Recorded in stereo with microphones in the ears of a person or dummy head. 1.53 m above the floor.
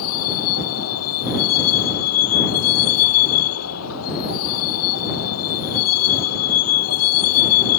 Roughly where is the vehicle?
Left.